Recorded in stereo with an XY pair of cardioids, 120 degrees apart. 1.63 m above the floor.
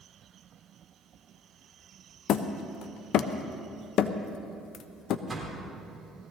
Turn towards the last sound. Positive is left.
turn(degrees=-20)